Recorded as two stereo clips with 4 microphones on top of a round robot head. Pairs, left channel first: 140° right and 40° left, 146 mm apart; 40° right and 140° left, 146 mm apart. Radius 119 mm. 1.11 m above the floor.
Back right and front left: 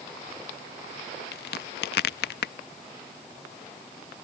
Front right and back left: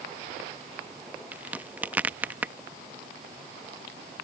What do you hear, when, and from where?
1.3 s a crack: 140° right